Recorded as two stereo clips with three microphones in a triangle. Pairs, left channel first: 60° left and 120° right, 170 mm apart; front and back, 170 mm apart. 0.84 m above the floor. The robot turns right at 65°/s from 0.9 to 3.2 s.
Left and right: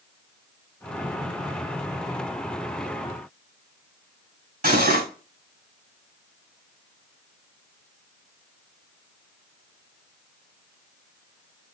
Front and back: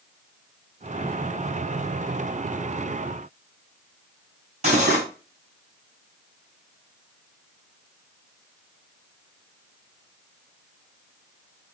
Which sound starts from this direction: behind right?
Cutlery clinking, at 4.6 s.